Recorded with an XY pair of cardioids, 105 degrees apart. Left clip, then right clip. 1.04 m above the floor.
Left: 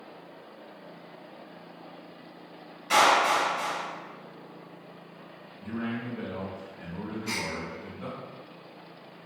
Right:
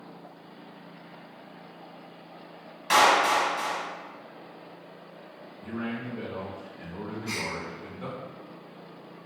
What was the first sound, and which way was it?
A clap, 65° right.